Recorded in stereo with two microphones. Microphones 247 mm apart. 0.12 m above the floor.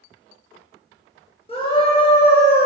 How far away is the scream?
About 2 m.